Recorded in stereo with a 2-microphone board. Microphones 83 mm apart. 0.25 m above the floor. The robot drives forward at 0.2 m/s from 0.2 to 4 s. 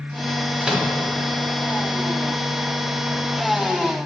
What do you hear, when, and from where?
0.6 s a microwave: 5° right (ahead or behind), 0.9 m